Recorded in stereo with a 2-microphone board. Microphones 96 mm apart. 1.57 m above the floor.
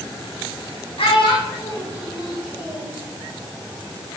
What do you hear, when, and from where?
1.0 s a child speaking: 75° left (ahead or behind), 2.5 m; by 2.9 s 50° left (ahead or behind), 5 m